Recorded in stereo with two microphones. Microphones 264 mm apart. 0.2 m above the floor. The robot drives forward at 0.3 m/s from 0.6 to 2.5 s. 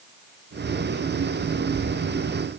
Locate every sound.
Only background noise.